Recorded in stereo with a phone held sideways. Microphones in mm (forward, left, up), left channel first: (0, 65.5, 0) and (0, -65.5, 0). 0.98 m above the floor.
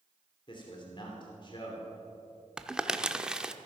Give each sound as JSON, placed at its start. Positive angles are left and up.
{"t": 0.5, "sound": "a man speaking", "side_deg": 35, "distance_m": 3.0}
{"t": 2.6, "sound": "crumpling", "side_deg": -5, "distance_m": 0.7}